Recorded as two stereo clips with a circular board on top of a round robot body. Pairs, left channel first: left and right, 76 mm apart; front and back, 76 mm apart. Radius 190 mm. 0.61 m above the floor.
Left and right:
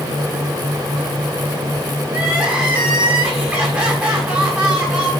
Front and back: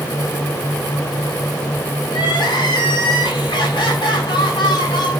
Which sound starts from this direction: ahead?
Crying, at 2.1 s.